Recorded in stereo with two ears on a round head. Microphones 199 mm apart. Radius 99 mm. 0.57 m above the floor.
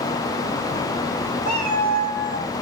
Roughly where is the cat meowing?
Left.